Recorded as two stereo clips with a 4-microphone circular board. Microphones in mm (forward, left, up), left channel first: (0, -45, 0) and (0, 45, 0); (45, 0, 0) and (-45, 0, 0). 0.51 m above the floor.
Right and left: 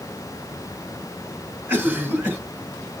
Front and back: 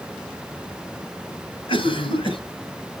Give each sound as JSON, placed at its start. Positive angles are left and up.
{"t": 1.7, "sound": "a cough", "azimuth_deg": 20, "distance_m": 3.0}